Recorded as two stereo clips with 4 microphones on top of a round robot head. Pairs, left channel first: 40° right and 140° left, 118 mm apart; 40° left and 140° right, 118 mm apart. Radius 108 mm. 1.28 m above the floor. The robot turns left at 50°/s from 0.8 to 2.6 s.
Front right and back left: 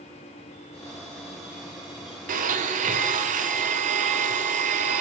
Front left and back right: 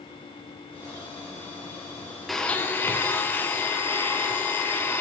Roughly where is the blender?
Behind left.